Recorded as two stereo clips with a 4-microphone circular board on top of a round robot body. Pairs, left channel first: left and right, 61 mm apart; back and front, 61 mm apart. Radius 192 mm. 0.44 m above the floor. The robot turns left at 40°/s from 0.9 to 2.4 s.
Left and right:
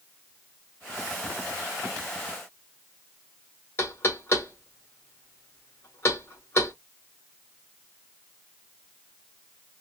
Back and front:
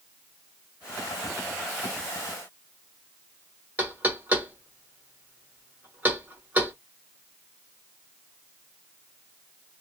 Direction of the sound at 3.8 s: 55° left.